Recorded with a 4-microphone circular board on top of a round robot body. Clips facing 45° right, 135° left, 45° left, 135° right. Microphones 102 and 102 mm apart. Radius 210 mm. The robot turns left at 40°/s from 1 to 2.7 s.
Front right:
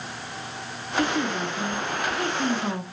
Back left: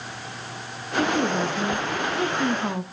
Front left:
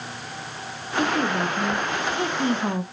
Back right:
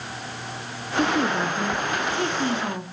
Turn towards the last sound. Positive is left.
turn(degrees=70)